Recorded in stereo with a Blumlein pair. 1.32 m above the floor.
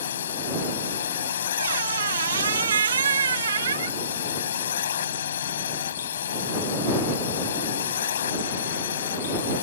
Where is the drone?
65° left.